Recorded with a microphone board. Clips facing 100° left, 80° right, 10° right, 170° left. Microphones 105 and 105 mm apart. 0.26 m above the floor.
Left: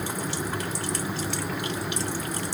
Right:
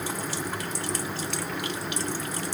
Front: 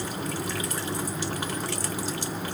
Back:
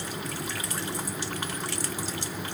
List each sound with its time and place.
Only background noise.